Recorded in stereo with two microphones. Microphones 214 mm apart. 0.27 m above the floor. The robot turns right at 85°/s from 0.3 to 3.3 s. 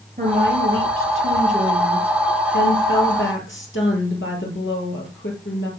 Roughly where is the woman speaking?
Behind right.